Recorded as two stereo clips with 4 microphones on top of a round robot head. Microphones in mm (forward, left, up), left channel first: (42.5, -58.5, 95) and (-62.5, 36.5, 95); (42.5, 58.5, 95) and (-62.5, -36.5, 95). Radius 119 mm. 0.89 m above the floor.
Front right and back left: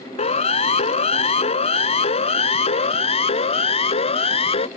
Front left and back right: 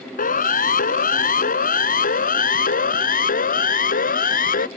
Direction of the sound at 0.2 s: 10° left.